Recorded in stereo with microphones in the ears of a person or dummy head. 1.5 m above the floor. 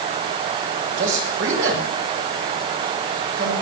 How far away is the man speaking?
About 6.5 m.